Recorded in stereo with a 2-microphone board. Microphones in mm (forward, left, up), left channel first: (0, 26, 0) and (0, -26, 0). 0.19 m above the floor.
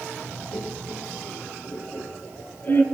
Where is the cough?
No cough in this recording.